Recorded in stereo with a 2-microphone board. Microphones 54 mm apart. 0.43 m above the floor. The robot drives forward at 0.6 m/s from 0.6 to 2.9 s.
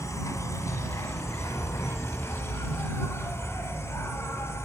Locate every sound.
0.0 s an insect: 75° left (ahead or behind), 2 m; by 4.7 s 55° left (ahead or behind), 2.5 m